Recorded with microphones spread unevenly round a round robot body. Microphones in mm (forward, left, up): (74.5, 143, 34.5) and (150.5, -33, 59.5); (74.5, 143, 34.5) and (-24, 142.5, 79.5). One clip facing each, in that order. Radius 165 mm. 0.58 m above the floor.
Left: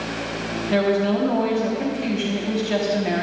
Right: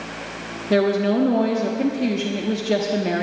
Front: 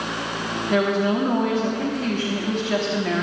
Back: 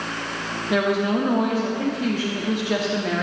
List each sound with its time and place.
0.7 s a woman speaking: 70° right, 1.2 m